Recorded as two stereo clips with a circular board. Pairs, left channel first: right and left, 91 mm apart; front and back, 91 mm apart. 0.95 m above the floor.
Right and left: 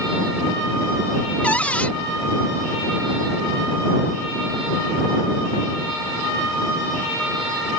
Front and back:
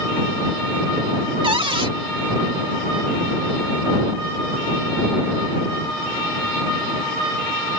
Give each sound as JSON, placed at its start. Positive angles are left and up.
{"t": 1.4, "sound": "a cupboard door", "azimuth_deg": -165}